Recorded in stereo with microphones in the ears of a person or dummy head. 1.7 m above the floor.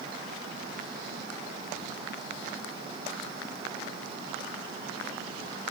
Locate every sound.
Only background noise.